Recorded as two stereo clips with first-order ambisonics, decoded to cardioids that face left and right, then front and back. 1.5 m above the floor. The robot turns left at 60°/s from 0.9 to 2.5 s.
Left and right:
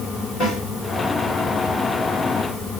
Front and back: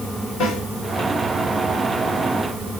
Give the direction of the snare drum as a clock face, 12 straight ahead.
11 o'clock.